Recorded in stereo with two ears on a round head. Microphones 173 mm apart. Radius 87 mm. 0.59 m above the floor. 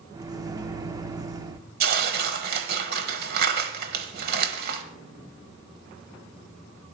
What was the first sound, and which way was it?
A microwave, 20° right (ahead or behind).